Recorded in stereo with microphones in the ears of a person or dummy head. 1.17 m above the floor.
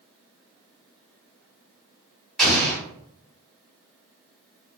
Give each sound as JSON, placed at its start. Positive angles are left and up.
{"t": 2.4, "sound": "an explosion", "side_deg": 0, "distance_m": 1.5}